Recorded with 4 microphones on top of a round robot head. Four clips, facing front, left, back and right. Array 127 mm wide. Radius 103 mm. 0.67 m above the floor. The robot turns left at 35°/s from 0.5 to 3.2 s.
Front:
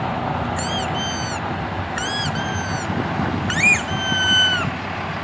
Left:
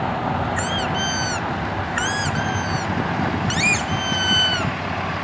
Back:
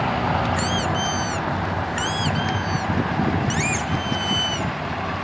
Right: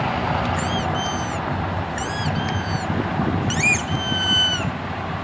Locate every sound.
0.6 s a squeak: 115° left; by 4.7 s 25° left